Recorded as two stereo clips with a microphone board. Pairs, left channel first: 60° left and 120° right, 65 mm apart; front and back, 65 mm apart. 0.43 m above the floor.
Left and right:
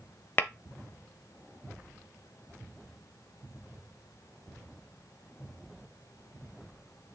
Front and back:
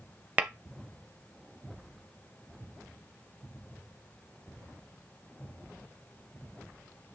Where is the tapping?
115° left, 0.5 m.